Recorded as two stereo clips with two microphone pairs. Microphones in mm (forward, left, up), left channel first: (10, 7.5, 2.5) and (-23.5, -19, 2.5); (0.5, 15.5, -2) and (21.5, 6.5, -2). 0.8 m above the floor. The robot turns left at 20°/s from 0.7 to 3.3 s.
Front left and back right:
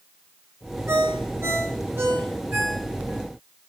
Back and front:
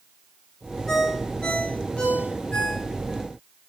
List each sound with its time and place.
0.9 s a ringtone: 145° right, 9.5 m; by 3.2 s 170° left, 9.5 m